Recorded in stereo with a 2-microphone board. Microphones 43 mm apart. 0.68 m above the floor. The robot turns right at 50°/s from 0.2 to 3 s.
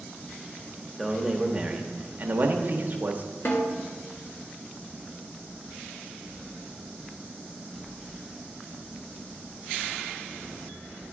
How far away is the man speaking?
About 0.9 m.